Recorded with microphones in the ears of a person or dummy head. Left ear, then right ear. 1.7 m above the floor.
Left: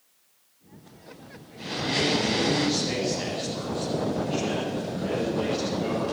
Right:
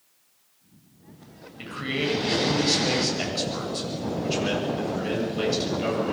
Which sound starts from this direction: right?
A man speaking, at 1.6 s.